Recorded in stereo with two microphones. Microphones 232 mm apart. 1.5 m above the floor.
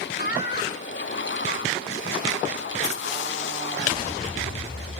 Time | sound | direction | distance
0.2 | laughter | 45° left (ahead or behind) | 2.5 m